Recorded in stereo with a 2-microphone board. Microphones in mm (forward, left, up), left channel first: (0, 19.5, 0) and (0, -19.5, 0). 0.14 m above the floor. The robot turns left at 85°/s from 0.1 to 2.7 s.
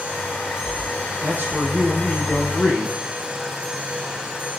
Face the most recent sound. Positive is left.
turn(degrees=135)